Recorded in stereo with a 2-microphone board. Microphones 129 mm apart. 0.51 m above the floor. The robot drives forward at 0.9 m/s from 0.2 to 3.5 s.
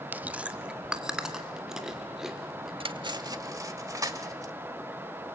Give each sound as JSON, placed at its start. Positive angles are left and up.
{"t": 0.1, "sound": "chewing", "side_deg": -15, "distance_m": 0.7}
{"t": 2.8, "sound": "cutlery clinking", "side_deg": -45, "distance_m": 0.8}